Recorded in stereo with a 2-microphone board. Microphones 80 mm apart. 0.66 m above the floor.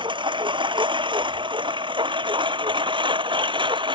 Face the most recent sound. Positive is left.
turn(degrees=-85)